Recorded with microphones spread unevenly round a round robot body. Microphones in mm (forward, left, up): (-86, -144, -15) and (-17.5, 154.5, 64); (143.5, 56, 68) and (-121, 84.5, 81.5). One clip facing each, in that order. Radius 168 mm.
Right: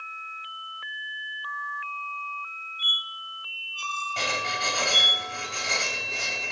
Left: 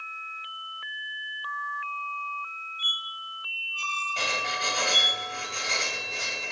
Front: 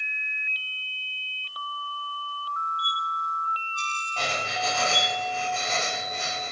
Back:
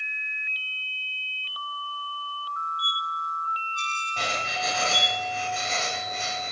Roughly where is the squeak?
Ahead.